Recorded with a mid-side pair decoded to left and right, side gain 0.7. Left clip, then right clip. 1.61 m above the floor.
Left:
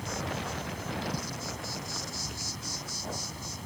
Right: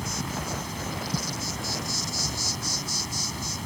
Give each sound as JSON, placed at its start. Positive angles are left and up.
{"t": 0.0, "sound": "an insect", "azimuth_deg": -40}